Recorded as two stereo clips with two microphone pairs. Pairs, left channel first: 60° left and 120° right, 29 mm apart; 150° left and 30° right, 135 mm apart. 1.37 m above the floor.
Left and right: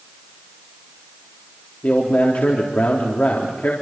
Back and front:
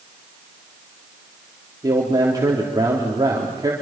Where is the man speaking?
35° left, 3.5 m.